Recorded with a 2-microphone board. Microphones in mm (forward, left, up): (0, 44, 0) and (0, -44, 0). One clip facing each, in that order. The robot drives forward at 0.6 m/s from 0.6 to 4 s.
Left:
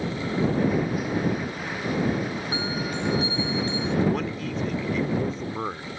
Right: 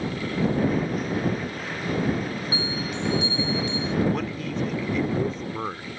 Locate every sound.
2.5 s a bell: 55° left (ahead or behind); by 4.0 s 35° left (ahead or behind)
4.1 s a man speaking: centre (ahead or behind)